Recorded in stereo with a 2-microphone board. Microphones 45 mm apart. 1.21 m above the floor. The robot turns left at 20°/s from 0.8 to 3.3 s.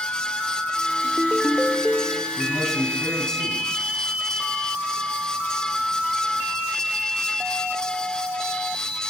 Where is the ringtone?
10° right (ahead or behind), 2 m; by 2.3 s 10° left (ahead or behind), 2 m.